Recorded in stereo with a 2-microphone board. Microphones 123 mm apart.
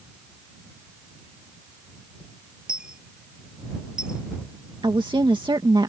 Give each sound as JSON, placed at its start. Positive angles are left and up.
{"t": 2.7, "sound": "a dropped coin", "side_deg": -5}
{"t": 4.8, "sound": "a woman speaking", "side_deg": -40}